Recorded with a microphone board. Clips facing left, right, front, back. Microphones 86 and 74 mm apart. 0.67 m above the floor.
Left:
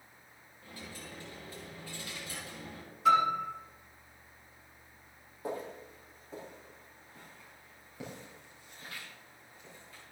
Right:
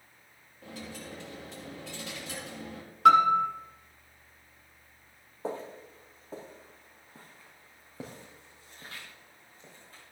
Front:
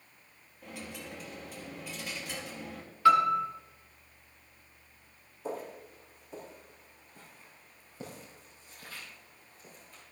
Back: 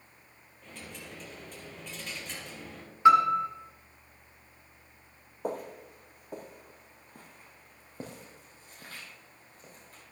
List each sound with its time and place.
0.6 s a dropped coin: 80° right, 3.5 m
3.0 s a piano: 110° right, 1.8 m
5.4 s footsteps: 150° right, 2 m; by 10.0 s 140° right, 5.5 m